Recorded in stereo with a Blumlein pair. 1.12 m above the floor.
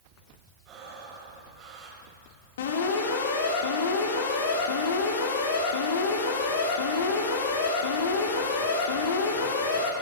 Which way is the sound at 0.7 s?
35° right.